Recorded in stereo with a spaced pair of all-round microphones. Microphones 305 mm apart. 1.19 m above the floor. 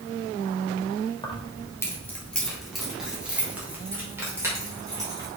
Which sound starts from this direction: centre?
Keys jangling, at 1.2 s.